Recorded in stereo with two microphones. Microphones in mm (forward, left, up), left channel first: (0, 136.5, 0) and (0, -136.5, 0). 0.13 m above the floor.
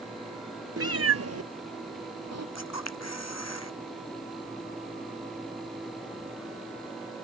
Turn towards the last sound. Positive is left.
turn(degrees=70)  # may be behind; listen again after turning